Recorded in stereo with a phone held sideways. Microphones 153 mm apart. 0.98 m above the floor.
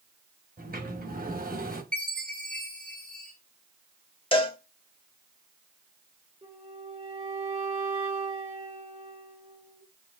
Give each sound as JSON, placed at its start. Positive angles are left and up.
{"t": 0.6, "sound": "a sliding door", "side_deg": -70, "distance_m": 1.1}
{"t": 1.9, "sound": "a chime", "side_deg": 5, "distance_m": 1.3}
{"t": 4.3, "sound": "a cowbell", "side_deg": 35, "distance_m": 0.8}
{"t": 6.4, "sound": "a flute", "side_deg": -40, "distance_m": 2.5}